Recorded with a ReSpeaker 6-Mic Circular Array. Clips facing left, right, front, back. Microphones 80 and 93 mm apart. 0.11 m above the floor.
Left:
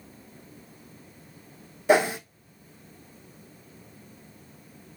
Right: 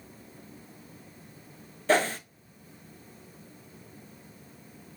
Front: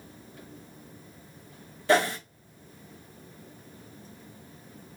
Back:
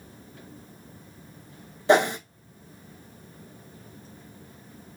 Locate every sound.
1.9 s a whoosh: 145° left, 0.7 m